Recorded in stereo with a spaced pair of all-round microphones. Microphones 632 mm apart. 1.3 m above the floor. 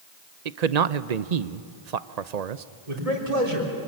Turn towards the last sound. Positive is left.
turn(degrees=-65)  # may be behind; listen again after turning